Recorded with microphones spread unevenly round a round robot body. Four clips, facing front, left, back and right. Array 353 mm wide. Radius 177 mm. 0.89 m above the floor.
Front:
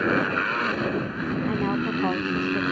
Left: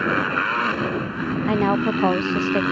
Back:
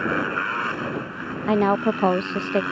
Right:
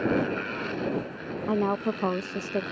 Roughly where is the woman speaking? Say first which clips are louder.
Left 5 dB, back 9 dB; behind.